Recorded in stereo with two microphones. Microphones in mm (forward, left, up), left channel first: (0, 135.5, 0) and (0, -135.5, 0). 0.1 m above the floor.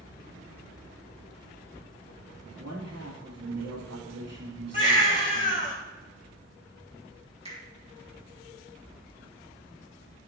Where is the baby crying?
30° left (ahead or behind), 3.5 m.